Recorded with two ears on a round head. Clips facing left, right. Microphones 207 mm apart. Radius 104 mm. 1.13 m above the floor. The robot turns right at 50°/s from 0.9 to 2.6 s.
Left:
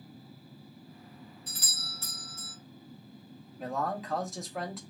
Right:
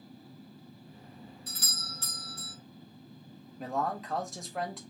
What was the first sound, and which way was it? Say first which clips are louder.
A doorbell: right 2 dB; 80° right.